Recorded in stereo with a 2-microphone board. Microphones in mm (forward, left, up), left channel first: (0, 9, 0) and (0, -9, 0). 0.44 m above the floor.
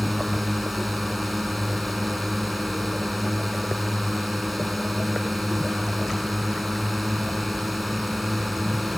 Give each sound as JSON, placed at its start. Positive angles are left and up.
{"t": 0.0, "sound": "a drone", "side_deg": -10}